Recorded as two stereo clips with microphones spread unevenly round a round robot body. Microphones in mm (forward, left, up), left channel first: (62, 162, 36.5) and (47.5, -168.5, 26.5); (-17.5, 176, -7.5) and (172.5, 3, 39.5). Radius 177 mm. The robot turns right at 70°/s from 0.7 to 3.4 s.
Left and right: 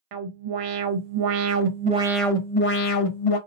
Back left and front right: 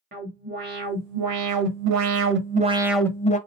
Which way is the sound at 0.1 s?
105° right.